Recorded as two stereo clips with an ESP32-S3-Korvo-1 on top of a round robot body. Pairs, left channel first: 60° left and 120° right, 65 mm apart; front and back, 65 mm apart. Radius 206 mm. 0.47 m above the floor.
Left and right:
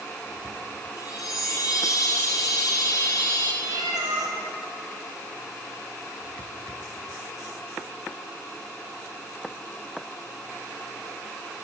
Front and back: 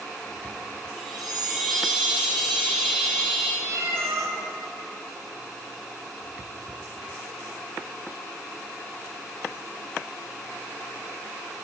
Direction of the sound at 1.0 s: 95° left.